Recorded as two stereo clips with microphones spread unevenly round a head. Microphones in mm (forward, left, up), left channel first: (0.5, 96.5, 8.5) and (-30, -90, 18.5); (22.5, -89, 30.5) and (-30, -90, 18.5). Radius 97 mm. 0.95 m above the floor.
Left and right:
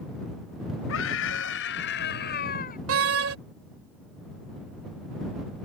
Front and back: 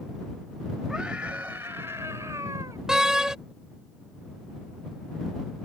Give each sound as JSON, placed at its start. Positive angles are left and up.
{"t": 0.9, "sound": "a scream", "azimuth_deg": 95}
{"t": 2.9, "sound": "a door slam", "azimuth_deg": -105}